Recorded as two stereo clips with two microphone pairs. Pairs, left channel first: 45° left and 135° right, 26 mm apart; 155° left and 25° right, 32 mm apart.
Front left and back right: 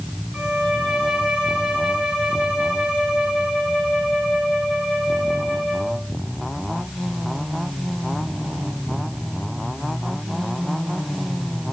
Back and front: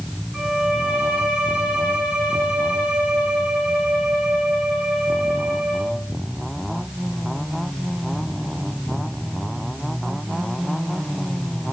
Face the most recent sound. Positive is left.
turn(degrees=-85)